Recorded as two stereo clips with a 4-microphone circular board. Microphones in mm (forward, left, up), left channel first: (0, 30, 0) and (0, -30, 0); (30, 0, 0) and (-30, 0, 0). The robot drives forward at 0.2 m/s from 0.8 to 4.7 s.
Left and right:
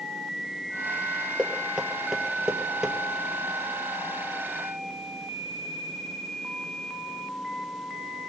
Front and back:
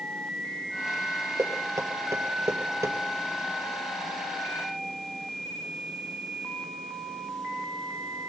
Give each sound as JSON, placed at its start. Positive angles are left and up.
{"t": 1.4, "sound": "knocking", "azimuth_deg": -170, "distance_m": 2.0}